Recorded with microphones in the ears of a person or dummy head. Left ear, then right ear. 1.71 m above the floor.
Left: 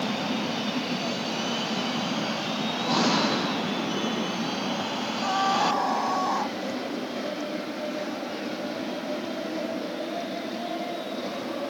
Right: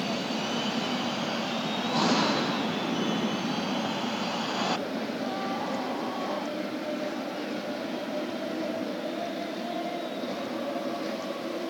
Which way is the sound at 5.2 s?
50° left (ahead or behind).